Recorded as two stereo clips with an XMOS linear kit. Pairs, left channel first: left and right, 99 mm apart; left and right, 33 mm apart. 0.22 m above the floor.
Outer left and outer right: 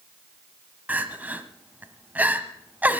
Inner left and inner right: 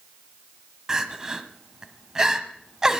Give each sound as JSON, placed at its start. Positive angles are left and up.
{"t": 0.9, "sound": "crying", "side_deg": -15, "distance_m": 1.2}